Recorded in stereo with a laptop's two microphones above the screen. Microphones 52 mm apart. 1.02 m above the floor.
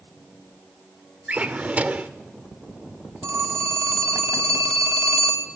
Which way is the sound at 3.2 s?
70° right (ahead or behind).